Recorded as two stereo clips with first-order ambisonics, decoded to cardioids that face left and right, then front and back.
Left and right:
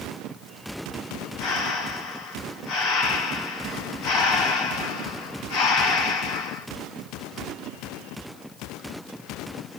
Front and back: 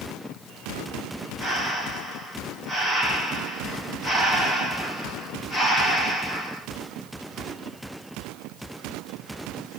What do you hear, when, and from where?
1.4 s breathing: 80° left, 1.4 m